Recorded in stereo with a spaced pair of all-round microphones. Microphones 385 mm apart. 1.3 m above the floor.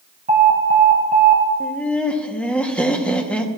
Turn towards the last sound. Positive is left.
turn(degrees=5)  # may be behind; listen again after turning